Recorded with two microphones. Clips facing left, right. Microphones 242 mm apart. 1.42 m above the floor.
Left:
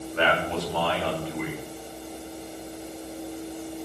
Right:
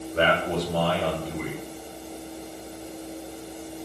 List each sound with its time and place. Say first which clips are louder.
0.1 s a man speaking: right 2 dB; 45° right (ahead or behind), 7 m